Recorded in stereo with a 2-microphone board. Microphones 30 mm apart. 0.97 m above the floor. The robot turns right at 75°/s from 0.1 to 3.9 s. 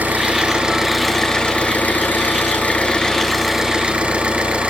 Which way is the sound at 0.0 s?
70° right.